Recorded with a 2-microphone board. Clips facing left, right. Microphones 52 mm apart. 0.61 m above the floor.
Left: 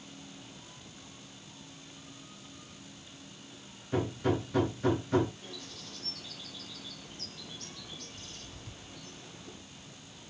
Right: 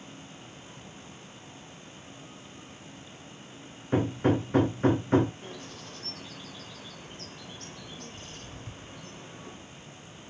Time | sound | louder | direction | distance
3.9 | hammering | right 5 dB | 40° right (ahead or behind) | 0.8 m
5.4 | a bird | right 4 dB | 40° right (ahead or behind) | 0.6 m